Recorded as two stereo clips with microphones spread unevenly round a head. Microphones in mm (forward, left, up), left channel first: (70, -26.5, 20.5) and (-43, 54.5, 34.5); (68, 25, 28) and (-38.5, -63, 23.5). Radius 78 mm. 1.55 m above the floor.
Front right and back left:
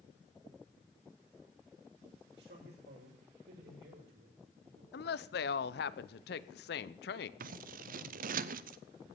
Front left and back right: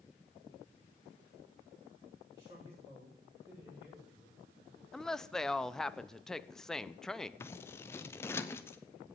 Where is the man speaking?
150° left, 8.5 m; by 4.8 s 130° left, 6.5 m.